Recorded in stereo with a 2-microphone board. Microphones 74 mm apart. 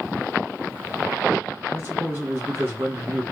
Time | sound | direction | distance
1.7 | a man speaking | 35° right (ahead or behind) | 1.5 m